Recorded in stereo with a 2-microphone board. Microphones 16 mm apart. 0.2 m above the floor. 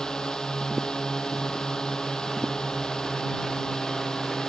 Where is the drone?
55° left (ahead or behind).